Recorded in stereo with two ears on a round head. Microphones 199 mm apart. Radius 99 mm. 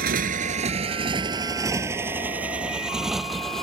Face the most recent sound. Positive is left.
turn(degrees=0)  # may be behind; listen again after turning